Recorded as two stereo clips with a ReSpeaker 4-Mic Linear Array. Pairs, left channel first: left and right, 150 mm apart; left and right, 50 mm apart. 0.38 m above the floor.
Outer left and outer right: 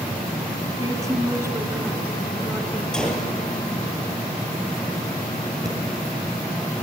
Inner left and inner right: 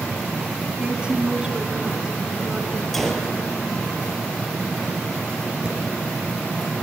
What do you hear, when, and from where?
0.8 s a woman speaking: 20° right (ahead or behind), 3.5 m; by 2.8 s 10° right (ahead or behind), 4 m
2.9 s a gunshot: 5° left (ahead or behind), 3.5 m
5.7 s breathing: 20° right (ahead or behind), 5 m